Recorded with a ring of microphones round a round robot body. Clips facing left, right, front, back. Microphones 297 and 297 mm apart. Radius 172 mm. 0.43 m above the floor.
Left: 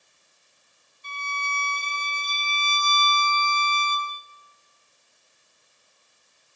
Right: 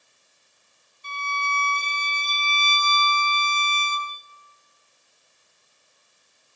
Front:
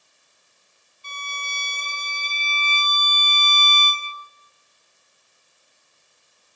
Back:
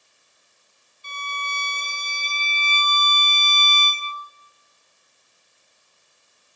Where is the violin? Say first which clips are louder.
Right 4 dB, back 4 dB; 100° right, 0.6 m.